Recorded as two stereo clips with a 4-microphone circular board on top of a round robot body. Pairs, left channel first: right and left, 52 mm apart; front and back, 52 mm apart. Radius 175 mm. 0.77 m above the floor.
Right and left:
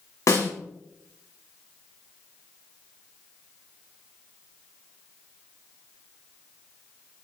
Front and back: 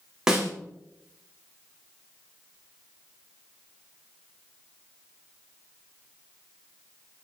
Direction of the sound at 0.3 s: 100° right.